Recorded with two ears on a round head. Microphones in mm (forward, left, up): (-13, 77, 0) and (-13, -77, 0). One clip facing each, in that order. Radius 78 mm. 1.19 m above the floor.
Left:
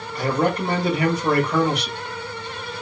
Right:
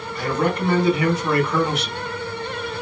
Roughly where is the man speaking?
Left.